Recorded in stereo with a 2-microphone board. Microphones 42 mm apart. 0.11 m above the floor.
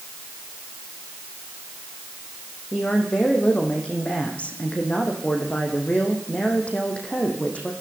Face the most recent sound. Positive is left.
turn(degrees=30)  # may be behind; listen again after turning